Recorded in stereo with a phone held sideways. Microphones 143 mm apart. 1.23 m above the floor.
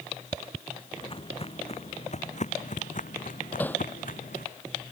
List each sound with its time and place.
1.0 s footsteps: 35° left (ahead or behind); by 4.5 s 75° left (ahead or behind)
3.6 s hammering: 15° left (ahead or behind)